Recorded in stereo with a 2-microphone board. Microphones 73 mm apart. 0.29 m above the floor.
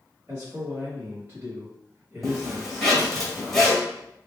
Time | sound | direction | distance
0.3 | a man speaking | 30° right (ahead or behind) | 1.1 m
2.2 | a zipper | 5° left (ahead or behind) | 1.5 m